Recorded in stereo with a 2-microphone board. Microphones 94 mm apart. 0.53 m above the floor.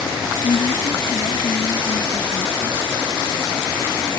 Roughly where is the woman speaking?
Left.